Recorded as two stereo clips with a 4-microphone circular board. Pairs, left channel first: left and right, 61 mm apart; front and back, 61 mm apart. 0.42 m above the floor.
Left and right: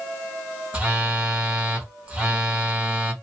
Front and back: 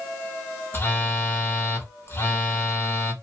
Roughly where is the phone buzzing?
Ahead right.